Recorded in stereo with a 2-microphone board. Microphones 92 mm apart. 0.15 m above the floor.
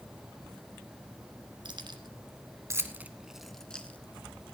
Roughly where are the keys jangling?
Right.